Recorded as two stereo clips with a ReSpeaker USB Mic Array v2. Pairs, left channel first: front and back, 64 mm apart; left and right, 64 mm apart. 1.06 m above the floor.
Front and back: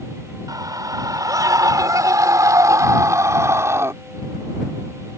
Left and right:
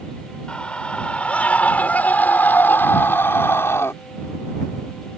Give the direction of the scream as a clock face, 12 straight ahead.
7 o'clock.